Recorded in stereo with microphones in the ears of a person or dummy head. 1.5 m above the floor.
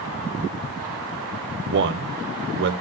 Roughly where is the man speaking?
Right.